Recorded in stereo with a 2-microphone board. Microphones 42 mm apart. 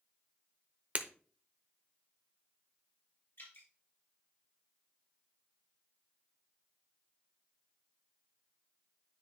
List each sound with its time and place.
0.9 s breaking glass: 35° right (ahead or behind), 0.7 m
3.4 s dripping: 75° left (ahead or behind), 3 m